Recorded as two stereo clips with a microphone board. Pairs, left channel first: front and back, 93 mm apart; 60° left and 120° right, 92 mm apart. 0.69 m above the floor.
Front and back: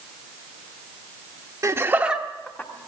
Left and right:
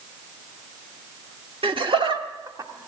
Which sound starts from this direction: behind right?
Laughter, at 1.6 s.